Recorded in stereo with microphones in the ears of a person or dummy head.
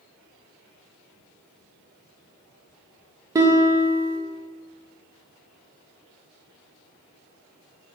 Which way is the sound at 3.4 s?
20° right (ahead or behind).